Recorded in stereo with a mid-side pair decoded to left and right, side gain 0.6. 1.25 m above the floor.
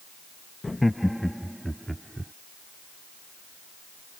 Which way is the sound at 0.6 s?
15° left.